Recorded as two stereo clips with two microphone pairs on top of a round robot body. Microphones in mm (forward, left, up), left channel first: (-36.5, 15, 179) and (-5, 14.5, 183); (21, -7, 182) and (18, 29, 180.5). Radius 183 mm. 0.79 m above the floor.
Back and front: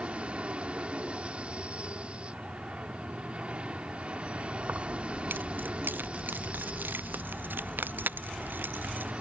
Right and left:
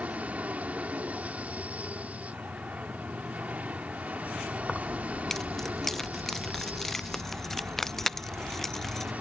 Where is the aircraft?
50° left.